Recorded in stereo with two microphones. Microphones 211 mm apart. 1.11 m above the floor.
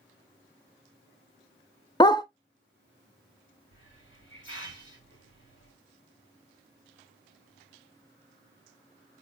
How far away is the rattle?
I don't hear a rattle.